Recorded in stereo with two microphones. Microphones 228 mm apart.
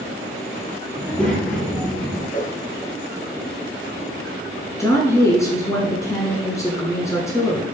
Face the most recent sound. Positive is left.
turn(degrees=15)  # may be behind; listen again after turning